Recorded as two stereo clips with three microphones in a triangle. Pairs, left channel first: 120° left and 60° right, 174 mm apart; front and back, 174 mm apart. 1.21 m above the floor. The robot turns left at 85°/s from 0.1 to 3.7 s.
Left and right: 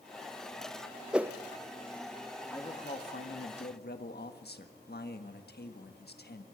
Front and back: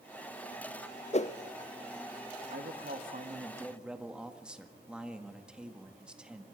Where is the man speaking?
165° right, 1.6 m; by 6.5 s 95° left, 1.6 m.